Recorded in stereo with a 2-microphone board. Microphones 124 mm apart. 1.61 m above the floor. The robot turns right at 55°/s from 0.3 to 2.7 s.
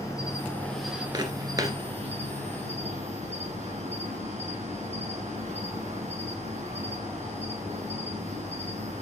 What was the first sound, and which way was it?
An insect, 150° left.